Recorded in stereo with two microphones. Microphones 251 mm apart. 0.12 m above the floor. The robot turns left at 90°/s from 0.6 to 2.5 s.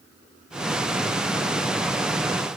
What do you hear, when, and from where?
Only background noise.